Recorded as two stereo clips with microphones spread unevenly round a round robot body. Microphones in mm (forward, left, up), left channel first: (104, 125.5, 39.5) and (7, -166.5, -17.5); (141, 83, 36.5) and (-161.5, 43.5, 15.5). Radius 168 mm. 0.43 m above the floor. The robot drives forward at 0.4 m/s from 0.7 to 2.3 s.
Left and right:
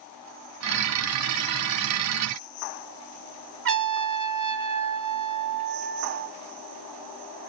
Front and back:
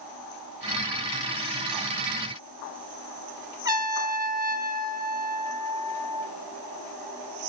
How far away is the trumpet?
About 1.1 m.